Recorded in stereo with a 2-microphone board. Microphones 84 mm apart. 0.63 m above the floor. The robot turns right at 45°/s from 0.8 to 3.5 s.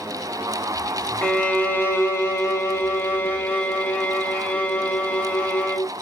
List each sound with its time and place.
1.2 s a violin: 35° left, 0.6 m; by 5.9 s 135° left, 0.6 m